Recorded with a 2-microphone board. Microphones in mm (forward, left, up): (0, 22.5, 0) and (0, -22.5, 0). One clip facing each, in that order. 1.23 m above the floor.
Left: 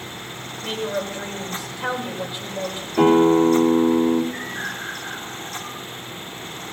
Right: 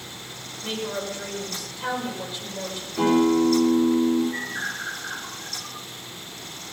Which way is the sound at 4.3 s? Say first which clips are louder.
Even; 15° right (ahead or behind).